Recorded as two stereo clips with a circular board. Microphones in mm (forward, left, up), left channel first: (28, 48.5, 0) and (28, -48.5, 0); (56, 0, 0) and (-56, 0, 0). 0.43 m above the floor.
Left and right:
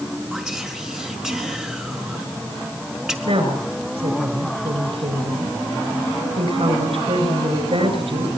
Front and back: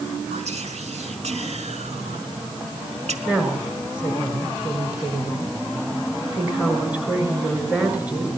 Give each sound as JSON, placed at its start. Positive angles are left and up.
{"t": 0.3, "sound": "whispering", "azimuth_deg": -170, "distance_m": 4.0}
{"t": 3.2, "sound": "a woman speaking", "azimuth_deg": -100, "distance_m": 6.0}